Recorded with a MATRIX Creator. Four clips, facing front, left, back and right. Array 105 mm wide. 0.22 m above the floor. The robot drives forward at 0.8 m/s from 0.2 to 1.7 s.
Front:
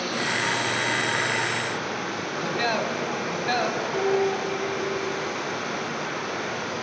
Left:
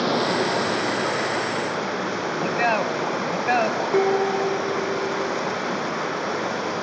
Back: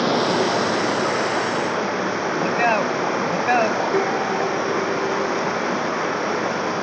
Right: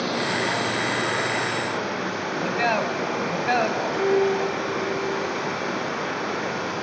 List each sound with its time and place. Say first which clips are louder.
0.0 s running water: left 3 dB, back 9 dB; 160° left, 1.4 m; by 6.8 s 170° left, 2.5 m
2.4 s a man speaking: left 1 dB, back 6 dB; 170° left, 1.3 m
3.9 s dishes clattering: left 1 dB, back 3 dB; 125° left, 1.4 m